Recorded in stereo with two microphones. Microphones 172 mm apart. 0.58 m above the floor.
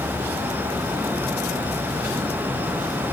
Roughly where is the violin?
I don't hear a violin.